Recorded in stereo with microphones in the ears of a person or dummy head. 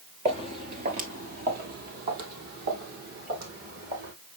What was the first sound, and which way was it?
Footsteps, 25° right (ahead or behind).